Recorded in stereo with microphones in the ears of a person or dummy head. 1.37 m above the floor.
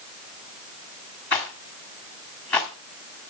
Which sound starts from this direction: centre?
A rattle, at 1.3 s.